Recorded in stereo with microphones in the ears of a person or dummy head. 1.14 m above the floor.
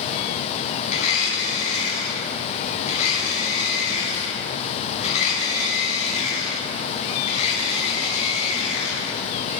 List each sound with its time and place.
0.9 s a blender: 40° left (ahead or behind), 4.5 m